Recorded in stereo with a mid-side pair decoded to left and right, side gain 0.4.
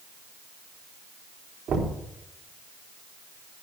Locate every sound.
1.7 s knocking: 65° right, 3.5 m